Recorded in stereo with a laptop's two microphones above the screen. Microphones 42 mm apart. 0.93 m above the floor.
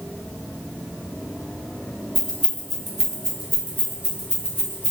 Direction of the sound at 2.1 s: 20° left (ahead or behind).